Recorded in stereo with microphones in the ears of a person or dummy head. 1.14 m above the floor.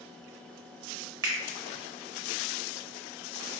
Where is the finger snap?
20° right (ahead or behind), 0.8 m.